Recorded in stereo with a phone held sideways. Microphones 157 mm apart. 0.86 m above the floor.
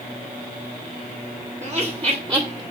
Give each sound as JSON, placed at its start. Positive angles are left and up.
{"t": 1.6, "sound": "laughter", "side_deg": -45, "distance_m": 1.3}